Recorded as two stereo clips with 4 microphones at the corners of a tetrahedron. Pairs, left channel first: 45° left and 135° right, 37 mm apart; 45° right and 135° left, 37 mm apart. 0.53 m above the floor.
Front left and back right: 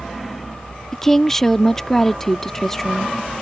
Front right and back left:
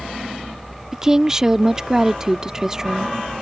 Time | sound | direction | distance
0.9 | a woman speaking | 100° left | ?